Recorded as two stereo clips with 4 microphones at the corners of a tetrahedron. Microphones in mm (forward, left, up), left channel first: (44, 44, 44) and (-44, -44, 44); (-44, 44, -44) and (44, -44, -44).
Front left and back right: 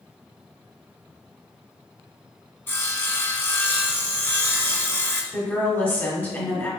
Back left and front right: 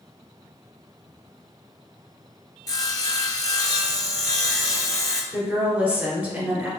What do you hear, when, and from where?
2.7 s sawing: 105° left, 0.7 m
5.3 s a woman speaking: 10° left, 1.5 m